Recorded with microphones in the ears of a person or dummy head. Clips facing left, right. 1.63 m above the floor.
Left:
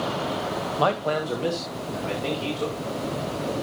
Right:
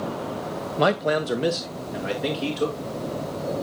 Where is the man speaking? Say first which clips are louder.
Right 3 dB; 25° right (ahead or behind), 0.7 m; by 2.8 s 20° right (ahead or behind), 2.5 m.